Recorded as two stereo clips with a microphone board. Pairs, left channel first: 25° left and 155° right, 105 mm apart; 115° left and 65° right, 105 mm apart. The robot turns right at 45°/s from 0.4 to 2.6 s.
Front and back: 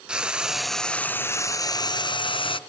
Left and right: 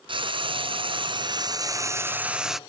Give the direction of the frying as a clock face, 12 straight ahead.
3 o'clock.